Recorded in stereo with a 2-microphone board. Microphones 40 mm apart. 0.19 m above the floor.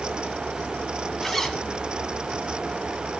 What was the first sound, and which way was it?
A zipper, 5° left (ahead or behind).